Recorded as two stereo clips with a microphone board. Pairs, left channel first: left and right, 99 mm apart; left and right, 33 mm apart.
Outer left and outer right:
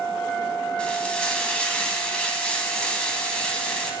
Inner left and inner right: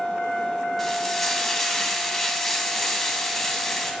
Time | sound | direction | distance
0.8 | frying | 10° left (ahead or behind) | 1.2 m